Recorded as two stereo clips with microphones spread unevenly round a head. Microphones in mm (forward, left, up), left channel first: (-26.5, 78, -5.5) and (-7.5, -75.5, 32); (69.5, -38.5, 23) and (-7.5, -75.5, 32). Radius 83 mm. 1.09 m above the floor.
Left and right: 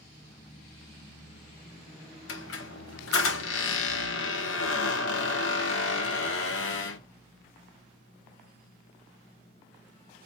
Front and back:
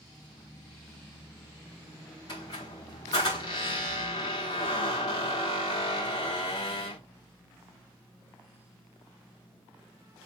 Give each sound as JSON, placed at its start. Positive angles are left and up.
{"t": 2.3, "sound": "a squeak", "azimuth_deg": 90, "distance_m": 1.8}